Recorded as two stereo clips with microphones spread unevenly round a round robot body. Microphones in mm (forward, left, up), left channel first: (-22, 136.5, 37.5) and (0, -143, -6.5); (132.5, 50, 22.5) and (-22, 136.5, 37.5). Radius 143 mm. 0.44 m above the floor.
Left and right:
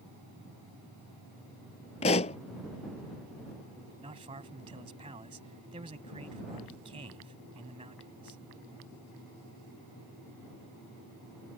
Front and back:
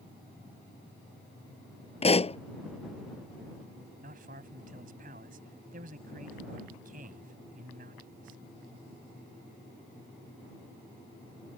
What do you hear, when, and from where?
2.0 s a pop: 25° left
4.0 s a man speaking: 155° right